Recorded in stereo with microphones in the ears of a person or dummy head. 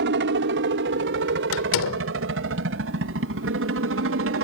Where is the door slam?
75° left (ahead or behind).